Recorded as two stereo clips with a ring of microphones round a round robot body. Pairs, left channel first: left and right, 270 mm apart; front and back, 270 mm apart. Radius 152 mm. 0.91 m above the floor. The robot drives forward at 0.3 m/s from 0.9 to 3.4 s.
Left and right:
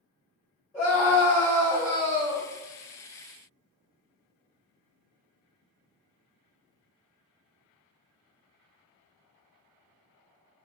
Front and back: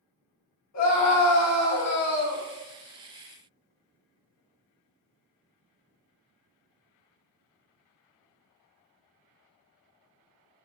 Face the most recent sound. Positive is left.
turn(degrees=5)